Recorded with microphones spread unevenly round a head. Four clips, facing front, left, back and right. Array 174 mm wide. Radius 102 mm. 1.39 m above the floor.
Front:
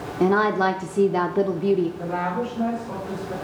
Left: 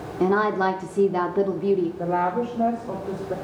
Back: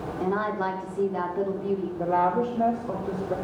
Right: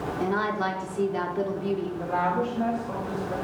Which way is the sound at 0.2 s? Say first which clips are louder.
Left 7 dB, front 8 dB; 10° left.